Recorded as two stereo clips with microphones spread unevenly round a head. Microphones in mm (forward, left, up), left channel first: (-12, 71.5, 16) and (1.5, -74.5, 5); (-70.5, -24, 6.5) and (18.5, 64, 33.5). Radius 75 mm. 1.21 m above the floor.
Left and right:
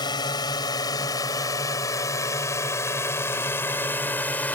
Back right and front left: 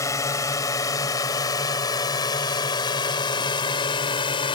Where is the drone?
160° left; by 4.6 s 175° left.